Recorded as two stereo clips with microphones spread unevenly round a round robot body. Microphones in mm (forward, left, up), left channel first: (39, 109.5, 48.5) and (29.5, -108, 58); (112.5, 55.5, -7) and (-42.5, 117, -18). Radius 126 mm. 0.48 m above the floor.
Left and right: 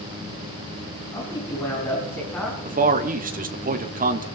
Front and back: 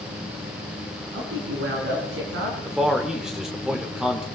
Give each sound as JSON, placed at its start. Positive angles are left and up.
{"t": 1.1, "sound": "a man speaking", "azimuth_deg": 160, "distance_m": 4.5}
{"t": 2.6, "sound": "a man speaking", "azimuth_deg": -120, "distance_m": 1.3}